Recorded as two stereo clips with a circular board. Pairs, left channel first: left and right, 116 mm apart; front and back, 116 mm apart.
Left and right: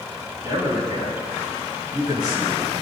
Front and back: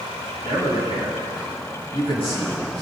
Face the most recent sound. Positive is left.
turn(degrees=-35)